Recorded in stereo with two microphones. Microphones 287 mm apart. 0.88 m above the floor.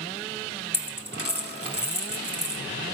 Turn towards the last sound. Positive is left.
turn(degrees=-55)  # may be behind; listen again after turning